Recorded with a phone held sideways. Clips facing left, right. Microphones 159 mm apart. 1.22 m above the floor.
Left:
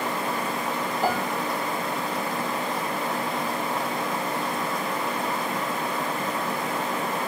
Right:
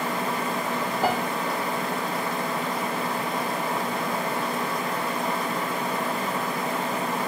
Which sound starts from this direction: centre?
A piano, at 1.0 s.